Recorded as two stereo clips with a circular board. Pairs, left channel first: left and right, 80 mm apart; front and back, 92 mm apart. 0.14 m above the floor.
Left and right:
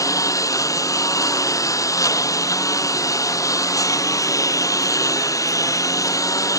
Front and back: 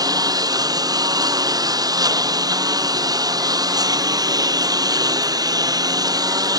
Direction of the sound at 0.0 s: 135° left.